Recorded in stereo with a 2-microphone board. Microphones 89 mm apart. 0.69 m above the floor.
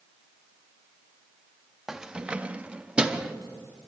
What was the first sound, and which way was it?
Keys jangling, 5° right (ahead or behind).